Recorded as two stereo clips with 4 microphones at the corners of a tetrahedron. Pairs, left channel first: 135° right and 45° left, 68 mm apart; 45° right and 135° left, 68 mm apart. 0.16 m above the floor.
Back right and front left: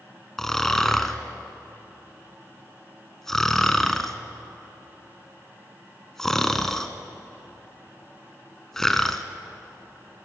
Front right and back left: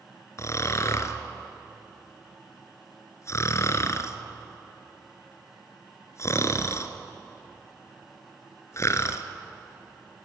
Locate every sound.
0.4 s snoring: 55° right, 1.5 m